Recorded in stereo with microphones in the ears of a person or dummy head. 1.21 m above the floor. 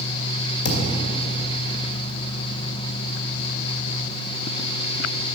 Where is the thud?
70° left (ahead or behind), 2 m.